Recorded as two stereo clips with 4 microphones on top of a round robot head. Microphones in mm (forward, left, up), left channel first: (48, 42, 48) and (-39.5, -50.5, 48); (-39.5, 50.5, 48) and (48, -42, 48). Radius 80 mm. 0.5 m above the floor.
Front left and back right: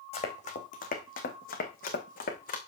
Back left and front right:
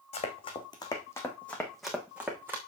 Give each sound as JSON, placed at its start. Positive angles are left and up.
{"t": 0.1, "sound": "running footsteps", "azimuth_deg": 90, "distance_m": 2.5}